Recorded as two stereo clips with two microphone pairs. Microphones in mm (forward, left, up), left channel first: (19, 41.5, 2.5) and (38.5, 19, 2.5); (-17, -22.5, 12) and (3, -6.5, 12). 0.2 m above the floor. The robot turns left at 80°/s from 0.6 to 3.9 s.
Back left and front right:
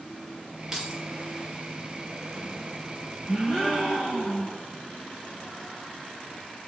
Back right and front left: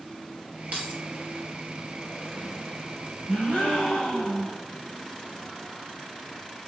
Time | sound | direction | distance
0.7 | keys jangling | 35° left | 3.5 m
3.3 | a gasp | 140° right | 4 m